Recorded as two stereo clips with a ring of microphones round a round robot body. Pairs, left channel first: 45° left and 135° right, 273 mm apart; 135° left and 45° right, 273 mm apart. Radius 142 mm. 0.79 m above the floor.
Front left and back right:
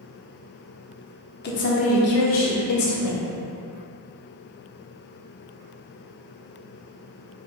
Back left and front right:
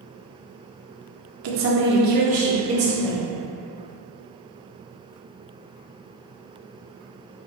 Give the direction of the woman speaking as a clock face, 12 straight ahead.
12 o'clock.